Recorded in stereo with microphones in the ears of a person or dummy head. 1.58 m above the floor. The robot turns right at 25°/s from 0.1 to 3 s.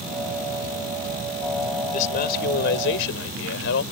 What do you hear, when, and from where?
1.9 s a man speaking: 45° left (ahead or behind); by 3.8 s 75° left (ahead or behind)